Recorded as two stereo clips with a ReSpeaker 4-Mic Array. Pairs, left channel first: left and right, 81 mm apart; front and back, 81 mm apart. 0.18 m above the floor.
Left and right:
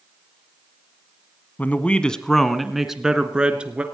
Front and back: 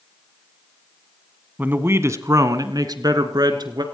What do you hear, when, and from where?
1.6 s a man speaking: 135° left, 1.2 m; by 3.8 s 165° right, 2 m